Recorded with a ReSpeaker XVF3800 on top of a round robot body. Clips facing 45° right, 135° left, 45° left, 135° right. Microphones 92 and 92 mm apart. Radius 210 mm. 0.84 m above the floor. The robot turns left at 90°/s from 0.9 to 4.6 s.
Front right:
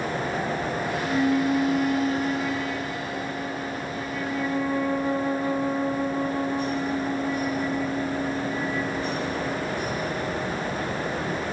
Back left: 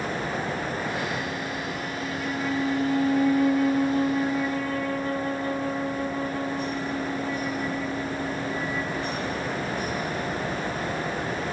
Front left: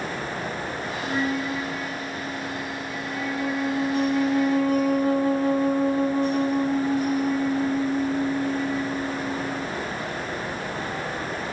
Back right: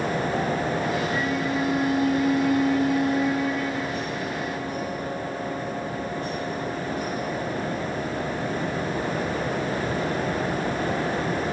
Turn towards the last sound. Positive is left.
turn(degrees=30)